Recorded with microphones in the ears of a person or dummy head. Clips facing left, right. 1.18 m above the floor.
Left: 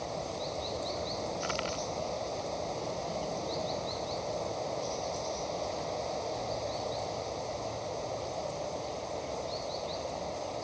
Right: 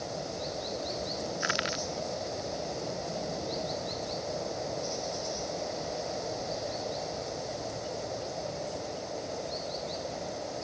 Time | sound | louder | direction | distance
0.0 | running water | even | 10° right (ahead or behind) | ?
1.4 | crushing | even | 15° right (ahead or behind) | ?